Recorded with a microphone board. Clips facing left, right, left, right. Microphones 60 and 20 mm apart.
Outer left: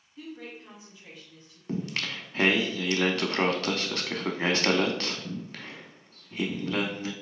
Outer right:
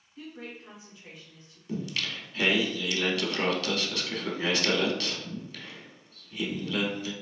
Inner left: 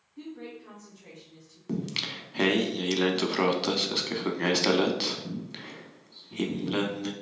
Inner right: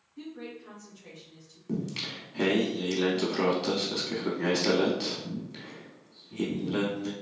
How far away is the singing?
About 0.6 m.